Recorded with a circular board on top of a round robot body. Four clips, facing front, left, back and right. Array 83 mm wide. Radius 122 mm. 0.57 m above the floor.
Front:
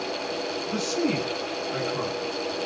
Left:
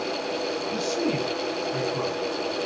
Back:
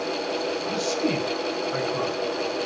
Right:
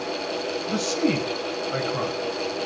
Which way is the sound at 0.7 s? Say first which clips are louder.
Right 4 dB, front 1 dB; 105° right.